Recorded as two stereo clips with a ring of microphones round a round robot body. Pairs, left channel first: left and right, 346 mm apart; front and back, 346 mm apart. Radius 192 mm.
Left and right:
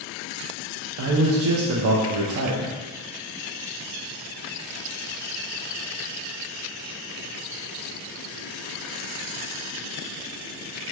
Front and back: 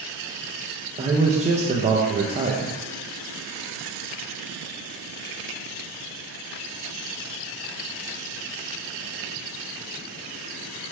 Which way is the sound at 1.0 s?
115° right.